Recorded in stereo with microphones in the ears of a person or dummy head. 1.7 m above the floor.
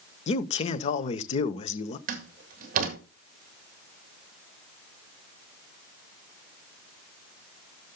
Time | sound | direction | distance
0.3 | a man speaking | 40° left (ahead or behind) | 0.8 m
2.1 | a door slam | 50° right (ahead or behind) | 2 m